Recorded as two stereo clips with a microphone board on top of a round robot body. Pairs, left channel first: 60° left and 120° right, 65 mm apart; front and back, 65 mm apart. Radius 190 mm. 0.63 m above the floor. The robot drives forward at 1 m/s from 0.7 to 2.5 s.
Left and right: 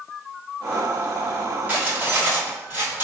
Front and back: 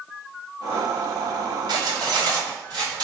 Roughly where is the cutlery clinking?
Behind.